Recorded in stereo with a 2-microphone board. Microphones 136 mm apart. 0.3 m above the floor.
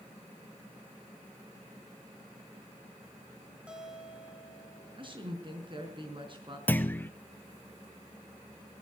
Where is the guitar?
10° right (ahead or behind), 3 m.